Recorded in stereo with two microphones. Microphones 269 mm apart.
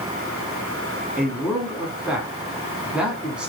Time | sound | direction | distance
1.2 | a man speaking | 5° right (ahead or behind) | 1.3 m